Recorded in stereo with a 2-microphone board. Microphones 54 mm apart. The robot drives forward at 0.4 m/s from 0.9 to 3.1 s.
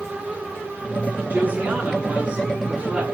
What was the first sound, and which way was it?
A woman speaking, 25° right (ahead or behind).